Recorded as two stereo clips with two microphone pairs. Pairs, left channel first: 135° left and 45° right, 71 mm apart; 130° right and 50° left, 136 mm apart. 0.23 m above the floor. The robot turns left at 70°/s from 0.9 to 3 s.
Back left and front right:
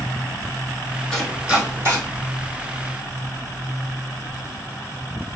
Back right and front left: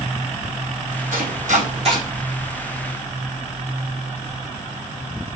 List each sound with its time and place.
1.1 s chopping: 55° left, 2 m; by 2.0 s 5° right, 2 m